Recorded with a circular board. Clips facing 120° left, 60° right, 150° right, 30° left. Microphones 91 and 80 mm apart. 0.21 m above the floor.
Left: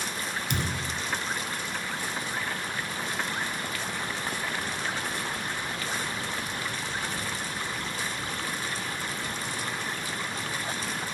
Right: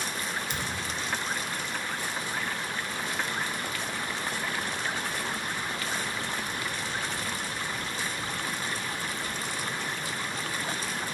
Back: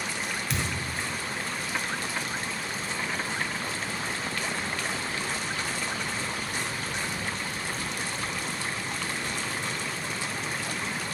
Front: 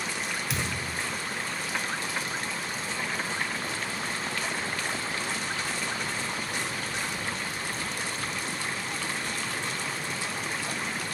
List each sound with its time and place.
0.5 s a thud: 115° left, 0.9 m